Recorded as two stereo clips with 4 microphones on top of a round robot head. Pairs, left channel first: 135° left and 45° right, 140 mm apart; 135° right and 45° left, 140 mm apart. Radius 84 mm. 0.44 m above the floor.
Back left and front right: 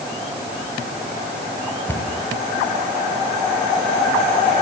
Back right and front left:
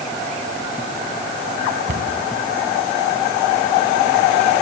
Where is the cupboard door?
65° left, 3.5 m.